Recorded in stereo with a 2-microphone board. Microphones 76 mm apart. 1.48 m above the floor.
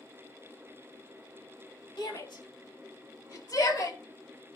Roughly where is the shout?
Left.